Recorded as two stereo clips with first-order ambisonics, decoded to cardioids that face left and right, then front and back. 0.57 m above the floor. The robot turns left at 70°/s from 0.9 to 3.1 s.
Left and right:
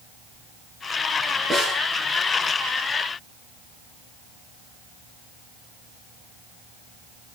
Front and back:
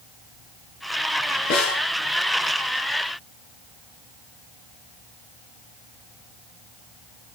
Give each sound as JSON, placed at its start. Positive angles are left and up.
{"t": 1.5, "sound": "a snare drum", "azimuth_deg": 5, "distance_m": 6.5}